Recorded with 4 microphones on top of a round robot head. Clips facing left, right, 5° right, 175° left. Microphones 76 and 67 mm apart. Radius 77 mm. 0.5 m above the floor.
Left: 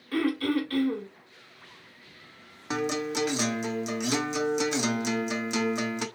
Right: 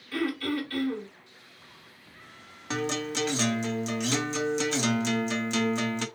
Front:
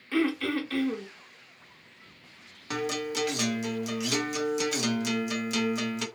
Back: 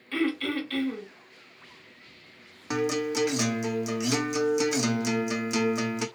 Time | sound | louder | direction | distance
0.1 | throat clearing | left 3 dB, front 1 dB | 65° left | 2 m
2.7 | a guitar | left 2 dB, back 4 dB | 145° left | 0.9 m